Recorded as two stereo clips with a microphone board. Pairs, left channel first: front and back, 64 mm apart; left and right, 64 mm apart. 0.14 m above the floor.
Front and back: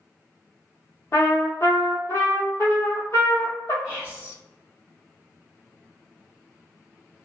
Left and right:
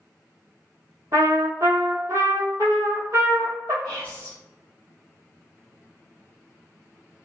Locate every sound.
1.1 s a trumpet: 45° right, 0.8 m
3.8 s whispering: 140° left, 1.4 m